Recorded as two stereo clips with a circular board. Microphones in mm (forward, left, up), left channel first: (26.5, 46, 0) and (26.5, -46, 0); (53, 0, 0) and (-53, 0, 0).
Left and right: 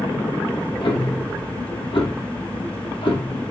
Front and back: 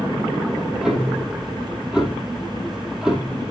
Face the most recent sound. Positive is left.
turn(degrees=100)